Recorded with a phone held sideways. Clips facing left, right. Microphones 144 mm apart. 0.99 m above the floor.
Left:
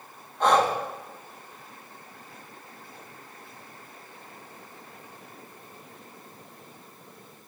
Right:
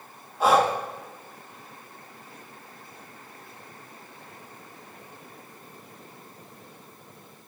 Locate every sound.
0.4 s breathing: 5° right (ahead or behind), 1.1 m